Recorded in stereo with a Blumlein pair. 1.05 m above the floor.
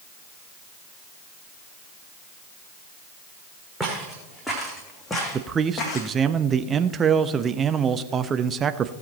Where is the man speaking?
20° right, 0.7 m.